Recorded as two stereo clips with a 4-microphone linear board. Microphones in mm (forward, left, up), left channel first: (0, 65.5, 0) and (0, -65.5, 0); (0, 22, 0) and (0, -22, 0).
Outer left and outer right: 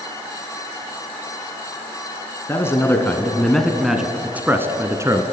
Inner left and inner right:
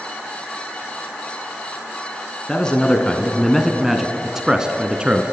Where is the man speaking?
20° left (ahead or behind), 2.0 m; by 5.2 s 25° right (ahead or behind), 2 m.